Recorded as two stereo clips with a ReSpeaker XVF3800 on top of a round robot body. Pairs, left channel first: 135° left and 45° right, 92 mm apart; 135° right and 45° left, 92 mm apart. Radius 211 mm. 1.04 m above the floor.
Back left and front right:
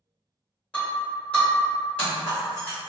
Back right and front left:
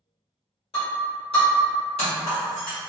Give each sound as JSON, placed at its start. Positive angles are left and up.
{"t": 0.7, "sound": "breaking glass", "azimuth_deg": -150, "distance_m": 1.2}